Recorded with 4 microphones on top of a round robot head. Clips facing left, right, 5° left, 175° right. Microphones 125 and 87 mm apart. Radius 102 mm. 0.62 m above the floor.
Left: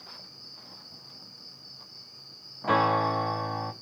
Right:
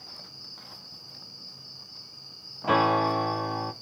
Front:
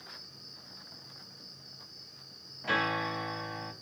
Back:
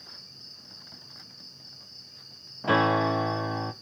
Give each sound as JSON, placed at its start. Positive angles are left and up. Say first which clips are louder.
{"t": 0.0, "sound": "an insect", "louder": "right 1 dB, front 1 dB", "azimuth_deg": -170, "distance_m": 1.8}
{"t": 2.6, "sound": "a piano", "louder": "right 1 dB, back 8 dB", "azimuth_deg": -175, "distance_m": 0.6}